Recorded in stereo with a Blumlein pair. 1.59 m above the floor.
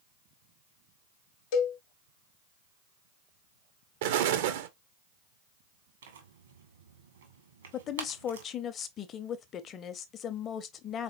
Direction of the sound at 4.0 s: 55° right.